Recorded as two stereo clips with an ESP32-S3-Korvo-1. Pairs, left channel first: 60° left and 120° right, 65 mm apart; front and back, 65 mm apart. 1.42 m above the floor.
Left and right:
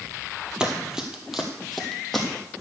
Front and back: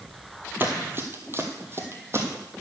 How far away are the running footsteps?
About 1.6 m.